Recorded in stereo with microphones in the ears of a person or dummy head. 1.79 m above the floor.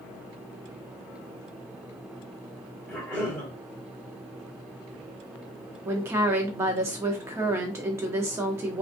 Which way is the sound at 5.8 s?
15° right (ahead or behind).